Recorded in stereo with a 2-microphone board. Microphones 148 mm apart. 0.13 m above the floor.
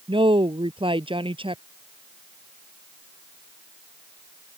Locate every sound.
0.1 s a woman speaking: 35° right (ahead or behind)